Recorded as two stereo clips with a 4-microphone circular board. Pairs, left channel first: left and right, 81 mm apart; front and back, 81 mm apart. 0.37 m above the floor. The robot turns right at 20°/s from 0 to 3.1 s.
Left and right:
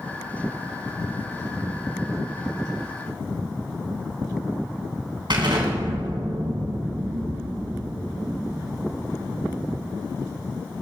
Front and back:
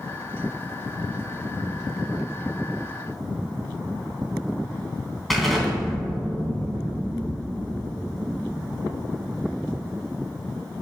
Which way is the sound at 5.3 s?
90° right.